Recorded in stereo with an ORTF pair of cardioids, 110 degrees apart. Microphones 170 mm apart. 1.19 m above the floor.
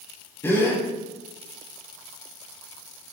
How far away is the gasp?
About 5.5 m.